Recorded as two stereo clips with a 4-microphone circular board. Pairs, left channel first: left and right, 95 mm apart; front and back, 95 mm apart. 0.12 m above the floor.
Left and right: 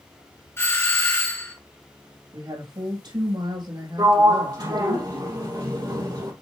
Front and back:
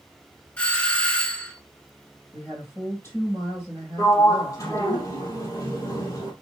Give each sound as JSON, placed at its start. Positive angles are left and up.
{"t": 0.6, "sound": "a doorbell", "azimuth_deg": 65, "distance_m": 2.0}
{"t": 2.3, "sound": "a woman speaking", "azimuth_deg": -60, "distance_m": 5.0}
{"t": 4.0, "sound": "a sliding door", "azimuth_deg": -50, "distance_m": 3.0}